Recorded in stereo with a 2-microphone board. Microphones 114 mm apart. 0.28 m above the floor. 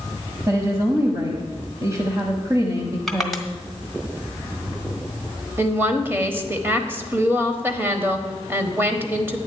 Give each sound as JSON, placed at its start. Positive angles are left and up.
{"t": 0.5, "sound": "a woman speaking", "side_deg": -30, "distance_m": 1.2}
{"t": 3.1, "sound": "crushing", "side_deg": 5, "distance_m": 1.2}
{"t": 5.6, "sound": "a woman speaking", "side_deg": -20, "distance_m": 1.1}